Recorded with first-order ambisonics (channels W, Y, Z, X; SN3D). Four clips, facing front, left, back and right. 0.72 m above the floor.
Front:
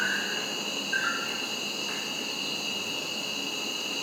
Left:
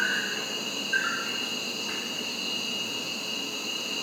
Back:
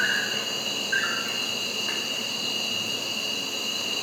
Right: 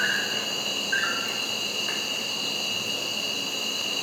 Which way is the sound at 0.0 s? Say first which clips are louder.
Right 2 dB, back 4 dB; 130° right.